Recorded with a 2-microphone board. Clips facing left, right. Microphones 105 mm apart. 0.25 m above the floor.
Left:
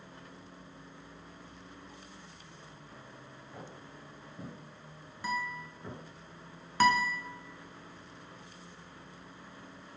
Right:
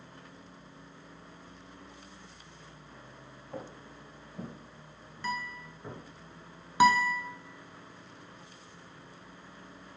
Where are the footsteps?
45° right (ahead or behind), 1.7 m; by 6.0 s 5° right (ahead or behind), 2.0 m.